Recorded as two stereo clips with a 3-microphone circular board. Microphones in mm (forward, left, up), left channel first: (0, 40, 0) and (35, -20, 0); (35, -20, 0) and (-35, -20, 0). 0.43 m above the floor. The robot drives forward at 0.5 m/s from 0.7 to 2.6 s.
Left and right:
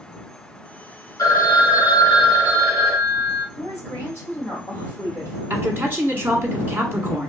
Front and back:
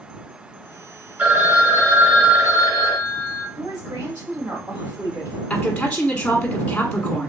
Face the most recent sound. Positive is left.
turn(degrees=-60)